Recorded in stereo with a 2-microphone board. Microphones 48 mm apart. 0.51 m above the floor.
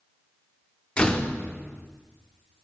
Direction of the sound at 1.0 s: 25° left (ahead or behind).